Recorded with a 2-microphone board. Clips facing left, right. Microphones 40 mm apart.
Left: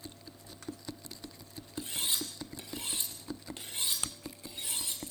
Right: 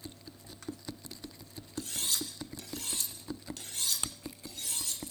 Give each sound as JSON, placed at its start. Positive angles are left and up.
{"t": 1.8, "sound": "cutlery clinking", "side_deg": 25, "distance_m": 5.0}